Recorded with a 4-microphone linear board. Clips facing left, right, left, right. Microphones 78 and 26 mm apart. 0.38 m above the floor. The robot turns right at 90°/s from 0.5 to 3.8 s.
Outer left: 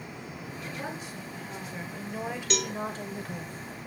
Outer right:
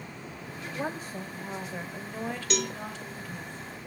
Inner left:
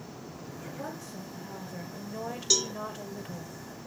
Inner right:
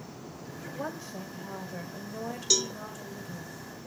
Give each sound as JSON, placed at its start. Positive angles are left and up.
{"t": 0.7, "sound": "a woman speaking", "azimuth_deg": -130, "distance_m": 1.9}
{"t": 2.5, "sound": "a cowbell", "side_deg": 0, "distance_m": 1.1}